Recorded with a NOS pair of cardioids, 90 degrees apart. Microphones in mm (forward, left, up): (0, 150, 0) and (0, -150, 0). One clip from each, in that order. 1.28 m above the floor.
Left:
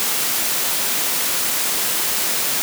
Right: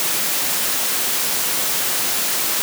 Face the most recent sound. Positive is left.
No sound to turn to.